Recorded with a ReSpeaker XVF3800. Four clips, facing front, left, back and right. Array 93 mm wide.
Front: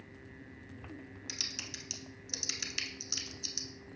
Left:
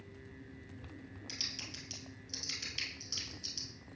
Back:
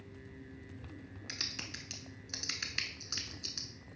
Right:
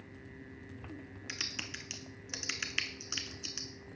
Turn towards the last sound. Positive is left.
turn(degrees=-120)